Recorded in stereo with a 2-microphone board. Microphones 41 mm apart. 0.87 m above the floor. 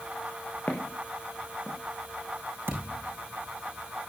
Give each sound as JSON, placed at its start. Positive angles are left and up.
{"t": 0.7, "sound": "footsteps", "side_deg": 40, "distance_m": 2.5}
{"t": 2.7, "sound": "a thud", "side_deg": -65, "distance_m": 5.0}